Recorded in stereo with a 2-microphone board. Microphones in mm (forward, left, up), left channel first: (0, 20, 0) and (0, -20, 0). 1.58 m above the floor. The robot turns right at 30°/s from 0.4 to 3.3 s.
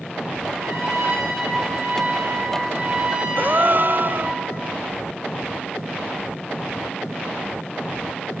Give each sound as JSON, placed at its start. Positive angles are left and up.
{"t": 0.6, "sound": "a trumpet", "azimuth_deg": -105, "distance_m": 7.5}
{"t": 3.4, "sound": "a gasp", "side_deg": -50, "distance_m": 0.9}